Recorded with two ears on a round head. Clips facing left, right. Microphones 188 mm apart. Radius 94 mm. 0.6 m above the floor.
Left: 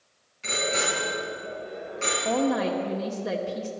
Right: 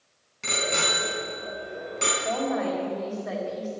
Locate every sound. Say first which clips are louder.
0.4 s a bicycle bell: left 1 dB; 65° right (ahead or behind), 4.5 m; by 2.1 s 50° right (ahead or behind), 4 m
2.2 s a woman speaking: left 3 dB; 45° left (ahead or behind), 1.7 m